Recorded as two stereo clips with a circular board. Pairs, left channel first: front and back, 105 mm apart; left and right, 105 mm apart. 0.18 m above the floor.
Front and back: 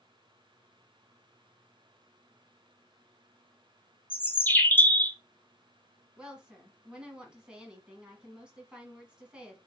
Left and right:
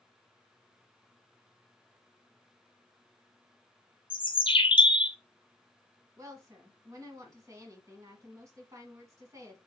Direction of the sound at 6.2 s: 105° right.